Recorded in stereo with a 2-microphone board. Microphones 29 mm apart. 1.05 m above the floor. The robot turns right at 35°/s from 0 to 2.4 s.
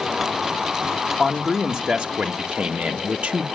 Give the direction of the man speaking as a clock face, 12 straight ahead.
6 o'clock.